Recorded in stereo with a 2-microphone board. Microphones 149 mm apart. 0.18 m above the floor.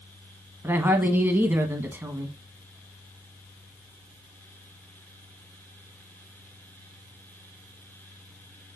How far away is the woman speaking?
About 1.1 m.